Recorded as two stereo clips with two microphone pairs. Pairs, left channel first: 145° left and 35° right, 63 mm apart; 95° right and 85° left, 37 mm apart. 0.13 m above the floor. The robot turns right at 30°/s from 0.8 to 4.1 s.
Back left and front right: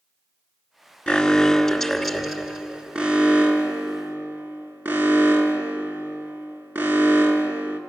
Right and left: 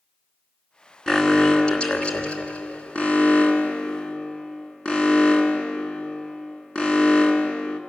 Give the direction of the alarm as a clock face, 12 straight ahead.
5 o'clock.